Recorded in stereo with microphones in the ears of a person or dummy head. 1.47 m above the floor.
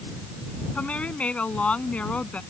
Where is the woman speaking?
5° left (ahead or behind).